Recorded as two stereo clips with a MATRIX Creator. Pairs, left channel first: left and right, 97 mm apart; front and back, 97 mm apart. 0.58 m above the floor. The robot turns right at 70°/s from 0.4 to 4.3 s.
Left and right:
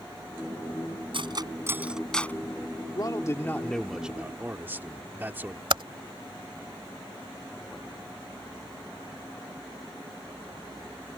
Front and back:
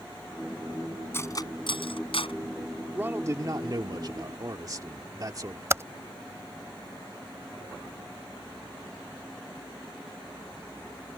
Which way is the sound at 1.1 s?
65° right.